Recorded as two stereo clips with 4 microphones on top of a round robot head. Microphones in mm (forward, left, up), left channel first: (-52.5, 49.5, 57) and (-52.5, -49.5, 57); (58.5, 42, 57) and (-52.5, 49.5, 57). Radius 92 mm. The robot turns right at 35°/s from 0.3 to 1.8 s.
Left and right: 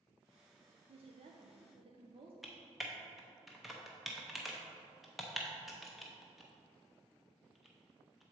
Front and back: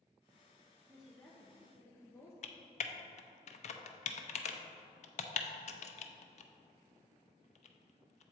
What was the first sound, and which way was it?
A woman speaking, 100° right.